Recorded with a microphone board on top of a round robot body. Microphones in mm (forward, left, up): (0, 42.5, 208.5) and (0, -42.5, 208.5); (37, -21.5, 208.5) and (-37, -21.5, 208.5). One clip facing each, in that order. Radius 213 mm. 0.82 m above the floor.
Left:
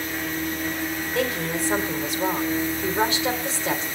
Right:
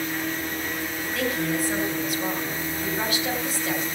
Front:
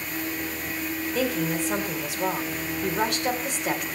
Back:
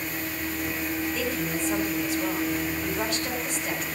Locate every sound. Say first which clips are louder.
1.1 s a woman speaking: right 1 dB, front 3 dB; 25° left, 4 m